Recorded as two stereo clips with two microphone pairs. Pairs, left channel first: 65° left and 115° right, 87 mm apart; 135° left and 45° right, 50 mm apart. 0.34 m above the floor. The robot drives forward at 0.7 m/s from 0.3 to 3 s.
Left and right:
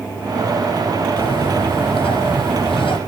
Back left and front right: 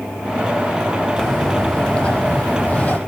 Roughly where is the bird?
Ahead left.